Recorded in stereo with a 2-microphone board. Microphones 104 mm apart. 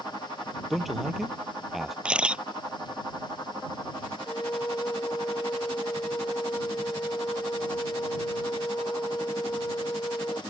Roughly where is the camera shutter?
Centre.